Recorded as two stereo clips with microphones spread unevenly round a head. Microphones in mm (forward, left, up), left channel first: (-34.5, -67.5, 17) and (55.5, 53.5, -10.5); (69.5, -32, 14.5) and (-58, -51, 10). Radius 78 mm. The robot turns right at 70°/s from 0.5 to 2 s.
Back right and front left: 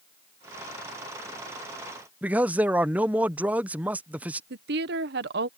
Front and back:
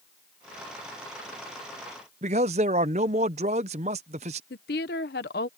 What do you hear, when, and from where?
2.2 s a man speaking: 140° left
4.5 s a woman speaking: 35° left